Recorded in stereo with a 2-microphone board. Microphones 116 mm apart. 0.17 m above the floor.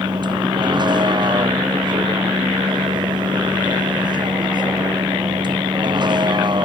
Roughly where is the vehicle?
Right.